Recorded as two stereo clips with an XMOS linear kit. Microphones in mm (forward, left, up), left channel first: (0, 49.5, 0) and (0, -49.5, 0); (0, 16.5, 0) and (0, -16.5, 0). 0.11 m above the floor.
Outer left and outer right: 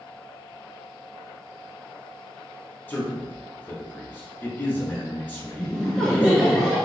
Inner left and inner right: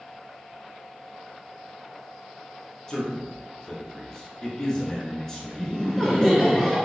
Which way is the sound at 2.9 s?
15° left (ahead or behind).